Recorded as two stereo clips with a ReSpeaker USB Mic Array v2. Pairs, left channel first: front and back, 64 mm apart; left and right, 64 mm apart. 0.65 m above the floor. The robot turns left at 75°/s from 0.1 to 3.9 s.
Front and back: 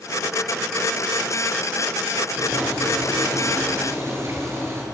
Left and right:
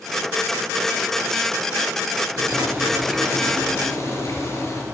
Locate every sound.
2.4 s boiling: 115° right, 6 m; by 4.8 s 130° left, 6 m